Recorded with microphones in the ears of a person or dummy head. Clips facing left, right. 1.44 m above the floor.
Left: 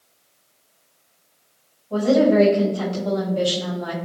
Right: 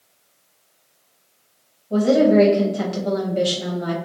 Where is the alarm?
I don't hear an alarm.